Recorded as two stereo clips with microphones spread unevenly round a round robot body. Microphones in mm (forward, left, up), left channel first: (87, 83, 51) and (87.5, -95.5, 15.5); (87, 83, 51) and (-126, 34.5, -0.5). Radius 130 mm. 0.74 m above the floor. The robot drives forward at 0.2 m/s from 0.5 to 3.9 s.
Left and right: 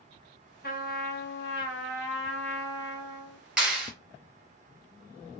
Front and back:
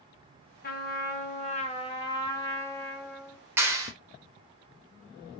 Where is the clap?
145° right, 0.8 m; by 3.9 s 150° right, 0.8 m.